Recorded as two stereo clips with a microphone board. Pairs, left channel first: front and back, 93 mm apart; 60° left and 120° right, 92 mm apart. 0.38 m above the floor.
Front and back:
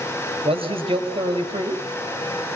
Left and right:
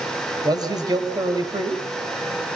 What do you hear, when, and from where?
0.5 s a man speaking: 165° right, 5.5 m